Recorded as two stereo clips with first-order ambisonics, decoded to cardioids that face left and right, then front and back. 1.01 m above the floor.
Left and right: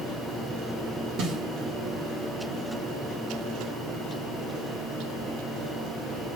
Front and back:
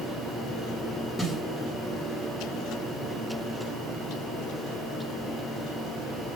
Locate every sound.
1.2 s a snare drum: 75° right, 1.3 m